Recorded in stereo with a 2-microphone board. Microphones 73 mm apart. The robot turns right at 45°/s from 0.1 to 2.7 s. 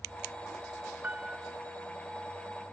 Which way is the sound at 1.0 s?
25° right (ahead or behind).